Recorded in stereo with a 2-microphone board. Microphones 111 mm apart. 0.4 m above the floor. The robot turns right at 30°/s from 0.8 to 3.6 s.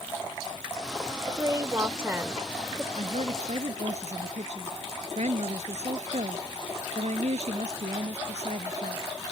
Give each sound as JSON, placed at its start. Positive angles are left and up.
{"t": 1.3, "sound": "a woman speaking", "azimuth_deg": -65}
{"t": 3.0, "sound": "a woman speaking", "side_deg": -80}